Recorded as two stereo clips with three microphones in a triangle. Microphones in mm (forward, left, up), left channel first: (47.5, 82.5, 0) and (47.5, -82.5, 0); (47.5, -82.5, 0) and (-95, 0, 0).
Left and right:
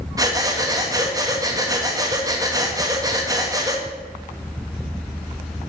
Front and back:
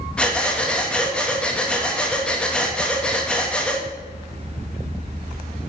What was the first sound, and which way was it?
Breathing, 105° right.